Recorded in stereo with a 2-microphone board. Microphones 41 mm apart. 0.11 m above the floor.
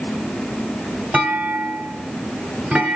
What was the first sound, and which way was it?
A clunk, 35° right (ahead or behind).